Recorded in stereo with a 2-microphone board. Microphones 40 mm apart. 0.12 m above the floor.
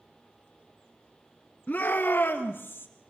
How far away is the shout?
About 1.7 m.